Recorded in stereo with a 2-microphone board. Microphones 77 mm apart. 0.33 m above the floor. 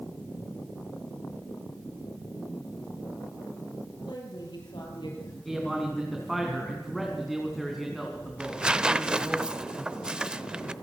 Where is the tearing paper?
10° right (ahead or behind), 0.6 m.